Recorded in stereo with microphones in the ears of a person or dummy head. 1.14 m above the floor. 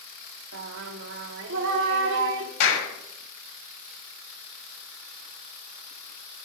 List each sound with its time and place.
0.5 s singing: 70° right (ahead or behind), 1.9 m
2.6 s a clap: 65° left (ahead or behind), 6 m